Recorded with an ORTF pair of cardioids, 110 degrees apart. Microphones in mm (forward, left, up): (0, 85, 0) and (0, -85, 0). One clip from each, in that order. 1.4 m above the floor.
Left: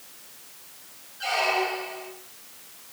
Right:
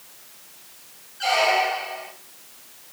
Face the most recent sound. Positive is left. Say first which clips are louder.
# right 5 dB
turn(degrees=-35)